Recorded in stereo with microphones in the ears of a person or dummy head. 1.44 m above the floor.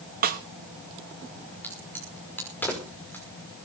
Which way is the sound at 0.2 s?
45° right (ahead or behind).